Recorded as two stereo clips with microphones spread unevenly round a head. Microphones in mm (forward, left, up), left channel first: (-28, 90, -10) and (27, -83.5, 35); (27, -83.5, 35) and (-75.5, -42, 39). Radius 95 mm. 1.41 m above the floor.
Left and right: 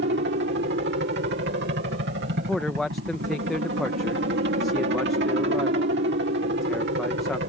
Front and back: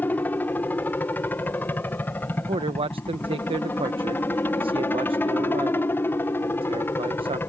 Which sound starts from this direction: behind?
A man speaking, at 2.4 s.